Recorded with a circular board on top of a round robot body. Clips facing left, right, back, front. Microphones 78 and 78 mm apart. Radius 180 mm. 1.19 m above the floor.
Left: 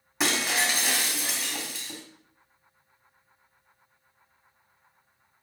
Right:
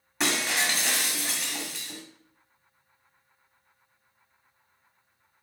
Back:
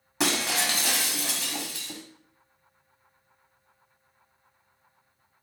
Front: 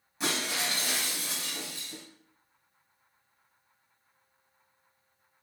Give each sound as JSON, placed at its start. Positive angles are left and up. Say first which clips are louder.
{"t": 0.2, "sound": "breaking glass", "louder": "left 1 dB, back 5 dB", "azimuth_deg": 180, "distance_m": 1.9}